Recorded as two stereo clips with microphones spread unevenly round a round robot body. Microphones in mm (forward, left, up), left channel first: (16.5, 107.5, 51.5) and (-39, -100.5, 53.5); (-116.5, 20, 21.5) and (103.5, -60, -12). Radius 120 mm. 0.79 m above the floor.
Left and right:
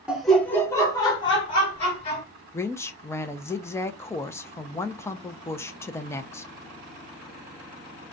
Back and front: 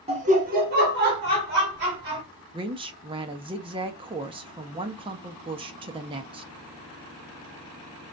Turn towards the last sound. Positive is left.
turn(degrees=10)